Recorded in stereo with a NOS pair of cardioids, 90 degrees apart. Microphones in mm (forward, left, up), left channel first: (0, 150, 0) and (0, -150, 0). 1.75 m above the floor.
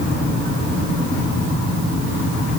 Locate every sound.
Only background noise.